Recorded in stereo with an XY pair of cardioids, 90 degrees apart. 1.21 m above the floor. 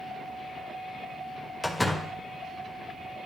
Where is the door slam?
15° left, 1.1 m.